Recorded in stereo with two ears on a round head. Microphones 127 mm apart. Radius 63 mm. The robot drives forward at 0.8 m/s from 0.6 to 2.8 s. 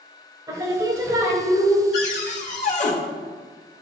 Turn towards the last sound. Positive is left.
turn(degrees=55)  # may be behind; listen again after turning